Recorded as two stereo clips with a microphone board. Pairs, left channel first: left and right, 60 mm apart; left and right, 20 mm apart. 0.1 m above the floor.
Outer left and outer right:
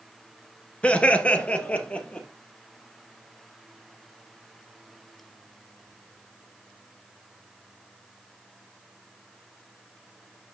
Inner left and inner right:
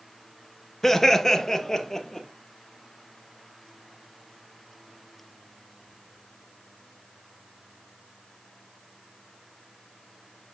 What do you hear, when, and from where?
0.8 s laughter: 20° left (ahead or behind), 1.1 m